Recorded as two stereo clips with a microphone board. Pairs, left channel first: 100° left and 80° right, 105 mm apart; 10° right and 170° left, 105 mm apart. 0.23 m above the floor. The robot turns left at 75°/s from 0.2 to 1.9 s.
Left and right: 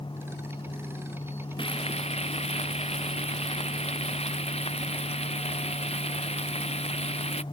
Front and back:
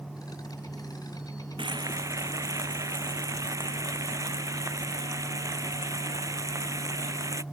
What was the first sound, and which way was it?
Frying, 135° left.